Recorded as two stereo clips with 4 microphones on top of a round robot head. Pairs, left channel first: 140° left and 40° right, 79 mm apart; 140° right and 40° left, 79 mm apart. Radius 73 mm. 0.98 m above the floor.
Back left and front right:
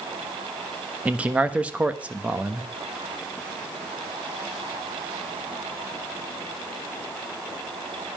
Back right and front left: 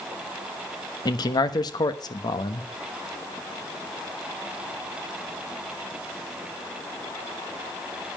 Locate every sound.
1.1 s a man speaking: 115° right, 1.2 m